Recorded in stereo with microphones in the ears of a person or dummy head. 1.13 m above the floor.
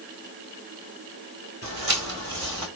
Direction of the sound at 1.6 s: 40° right (ahead or behind).